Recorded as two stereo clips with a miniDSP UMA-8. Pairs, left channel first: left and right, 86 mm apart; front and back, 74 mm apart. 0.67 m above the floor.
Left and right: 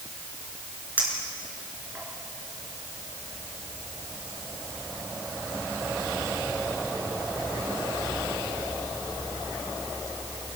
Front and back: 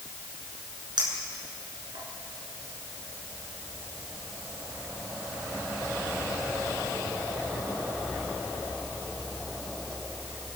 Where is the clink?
165° right, 5 m.